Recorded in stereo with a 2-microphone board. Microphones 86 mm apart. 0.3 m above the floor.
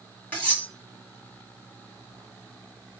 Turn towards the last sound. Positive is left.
turn(degrees=20)  # may be behind; listen again after turning